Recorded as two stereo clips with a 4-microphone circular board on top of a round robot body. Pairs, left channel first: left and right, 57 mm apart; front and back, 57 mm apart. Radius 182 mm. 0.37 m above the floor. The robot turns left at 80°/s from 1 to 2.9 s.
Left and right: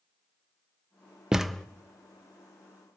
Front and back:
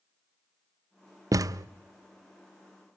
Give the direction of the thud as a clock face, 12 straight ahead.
6 o'clock.